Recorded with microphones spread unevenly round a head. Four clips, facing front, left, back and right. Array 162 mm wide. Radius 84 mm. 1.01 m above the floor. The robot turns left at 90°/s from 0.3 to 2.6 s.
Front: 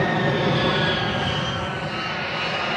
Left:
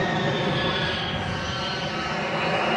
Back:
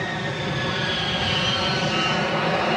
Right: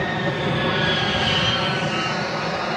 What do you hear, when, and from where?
0.0 s an aircraft: 5° left; by 2.8 s 155° left